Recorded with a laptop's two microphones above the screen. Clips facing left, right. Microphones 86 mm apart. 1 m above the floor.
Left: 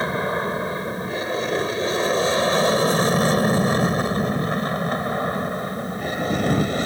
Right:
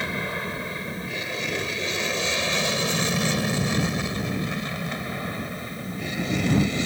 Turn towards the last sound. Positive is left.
turn(degrees=45)  # may be behind; listen again after turning